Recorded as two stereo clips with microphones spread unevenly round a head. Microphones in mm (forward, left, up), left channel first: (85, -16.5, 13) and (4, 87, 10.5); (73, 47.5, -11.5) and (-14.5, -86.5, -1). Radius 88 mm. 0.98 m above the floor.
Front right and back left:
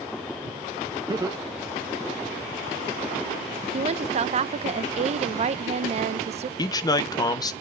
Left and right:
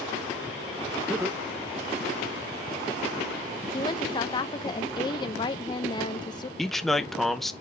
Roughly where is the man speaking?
Ahead right.